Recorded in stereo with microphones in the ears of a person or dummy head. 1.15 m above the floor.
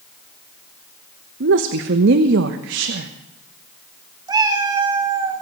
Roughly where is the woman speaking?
Right.